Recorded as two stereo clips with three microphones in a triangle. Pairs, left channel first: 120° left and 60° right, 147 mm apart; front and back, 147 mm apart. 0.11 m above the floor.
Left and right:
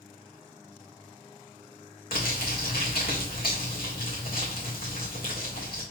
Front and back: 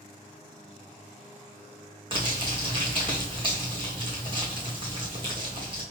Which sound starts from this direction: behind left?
Crumpling, at 2.1 s.